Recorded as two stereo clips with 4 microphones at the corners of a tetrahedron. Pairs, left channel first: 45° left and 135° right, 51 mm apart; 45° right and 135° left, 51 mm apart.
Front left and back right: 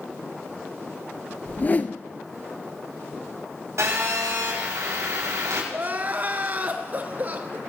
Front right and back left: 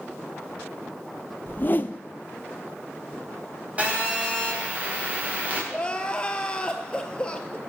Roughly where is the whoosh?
Ahead.